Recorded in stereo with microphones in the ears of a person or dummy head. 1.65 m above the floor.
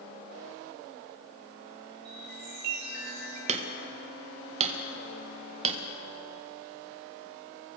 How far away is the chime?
About 6.5 m.